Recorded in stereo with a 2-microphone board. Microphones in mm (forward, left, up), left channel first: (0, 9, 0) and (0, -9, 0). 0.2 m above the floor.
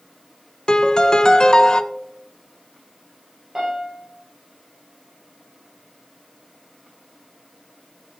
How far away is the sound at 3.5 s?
About 6 m.